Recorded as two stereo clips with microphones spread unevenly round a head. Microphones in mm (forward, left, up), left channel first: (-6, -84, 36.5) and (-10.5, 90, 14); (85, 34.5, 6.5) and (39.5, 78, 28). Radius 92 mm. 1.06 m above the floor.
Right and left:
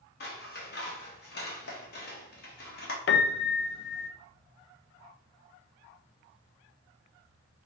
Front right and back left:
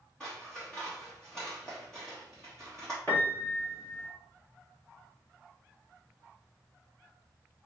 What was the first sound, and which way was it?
Scissors, 125° right.